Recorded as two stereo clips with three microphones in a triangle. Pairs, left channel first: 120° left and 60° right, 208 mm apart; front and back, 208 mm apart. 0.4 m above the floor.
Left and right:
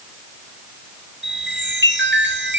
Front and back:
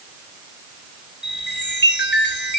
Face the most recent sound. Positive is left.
turn(degrees=-35)